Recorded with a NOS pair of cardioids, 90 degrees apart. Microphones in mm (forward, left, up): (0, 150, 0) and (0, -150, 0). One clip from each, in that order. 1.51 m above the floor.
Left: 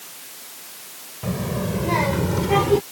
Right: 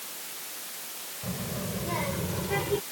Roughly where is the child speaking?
Ahead left.